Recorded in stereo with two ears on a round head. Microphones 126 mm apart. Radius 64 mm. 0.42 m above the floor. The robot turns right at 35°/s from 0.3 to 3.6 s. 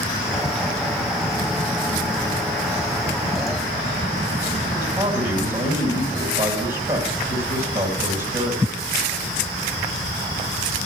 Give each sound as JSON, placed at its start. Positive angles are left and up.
{"t": 4.8, "sound": "a man speaking", "side_deg": -30, "distance_m": 2.5}